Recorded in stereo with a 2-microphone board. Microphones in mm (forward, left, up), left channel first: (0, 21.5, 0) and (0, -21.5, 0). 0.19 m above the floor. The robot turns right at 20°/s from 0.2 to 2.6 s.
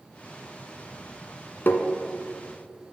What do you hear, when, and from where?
1.7 s tapping: 55° left (ahead or behind), 1.2 m; by 1.9 s 50° left (ahead or behind), 1.2 m